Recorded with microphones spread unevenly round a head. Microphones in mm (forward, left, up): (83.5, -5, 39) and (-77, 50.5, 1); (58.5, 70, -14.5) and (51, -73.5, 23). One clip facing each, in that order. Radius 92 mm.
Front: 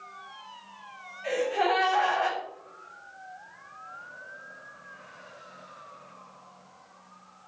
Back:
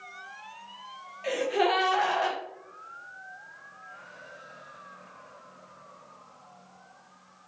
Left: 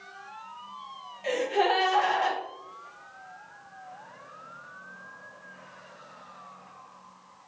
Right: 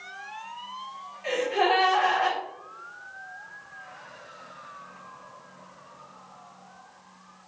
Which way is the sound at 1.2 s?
145° left.